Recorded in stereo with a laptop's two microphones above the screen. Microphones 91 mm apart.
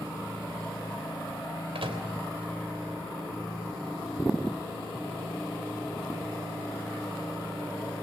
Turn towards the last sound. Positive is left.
turn(degrees=-80)